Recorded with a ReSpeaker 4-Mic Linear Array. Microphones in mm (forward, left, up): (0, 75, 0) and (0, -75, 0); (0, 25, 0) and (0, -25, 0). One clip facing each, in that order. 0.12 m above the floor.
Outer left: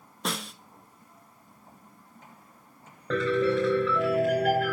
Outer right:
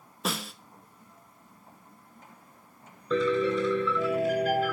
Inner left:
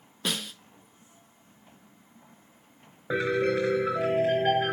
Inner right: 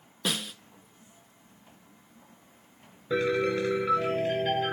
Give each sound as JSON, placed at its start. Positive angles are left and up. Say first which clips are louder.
{"t": 0.2, "sound": "a snare drum", "louder": "outer right 1 dB, even", "side_deg": 0, "distance_m": 0.7}
{"t": 3.1, "sound": "a piano", "louder": "outer left 1 dB, inner left 1 dB", "side_deg": 75, "distance_m": 4.0}